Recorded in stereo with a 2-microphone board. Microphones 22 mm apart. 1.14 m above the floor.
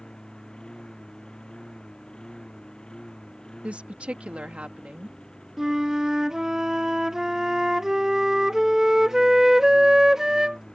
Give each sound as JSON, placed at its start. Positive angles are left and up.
{"t": 0.0, "sound": "a lawn mower", "side_deg": 45}
{"t": 3.6, "sound": "a woman speaking", "side_deg": -70}
{"t": 5.6, "sound": "a flute", "side_deg": -25}